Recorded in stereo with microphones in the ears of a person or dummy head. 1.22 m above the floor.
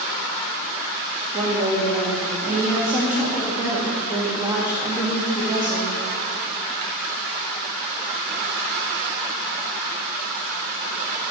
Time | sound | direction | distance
1.3 | a woman speaking | 10° right (ahead or behind) | 1.6 m